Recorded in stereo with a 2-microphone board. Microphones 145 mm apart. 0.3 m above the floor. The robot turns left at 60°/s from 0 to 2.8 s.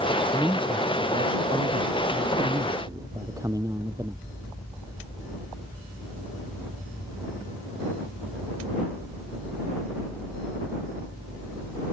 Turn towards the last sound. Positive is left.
turn(degrees=-155)